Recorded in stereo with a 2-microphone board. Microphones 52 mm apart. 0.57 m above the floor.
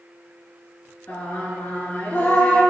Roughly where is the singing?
Left.